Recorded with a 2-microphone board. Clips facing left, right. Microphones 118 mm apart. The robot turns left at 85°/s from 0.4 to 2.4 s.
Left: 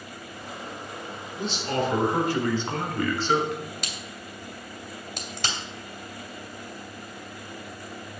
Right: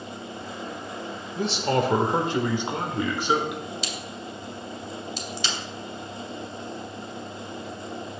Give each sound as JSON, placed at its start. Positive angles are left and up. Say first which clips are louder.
{"t": 1.4, "sound": "a man speaking", "louder": "right 4 dB", "azimuth_deg": -75, "distance_m": 1.5}
{"t": 3.8, "sound": "a crack", "louder": "right 4 dB", "side_deg": 60, "distance_m": 2.5}